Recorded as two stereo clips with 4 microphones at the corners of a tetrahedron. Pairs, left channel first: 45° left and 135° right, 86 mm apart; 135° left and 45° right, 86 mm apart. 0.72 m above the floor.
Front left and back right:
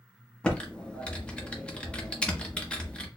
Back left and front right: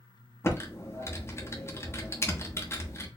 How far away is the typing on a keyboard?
About 0.8 m.